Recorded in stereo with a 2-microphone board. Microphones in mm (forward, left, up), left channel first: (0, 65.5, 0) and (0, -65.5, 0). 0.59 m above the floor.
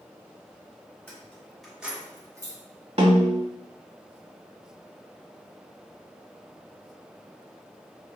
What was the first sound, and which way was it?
Keys jangling, 10° left (ahead or behind).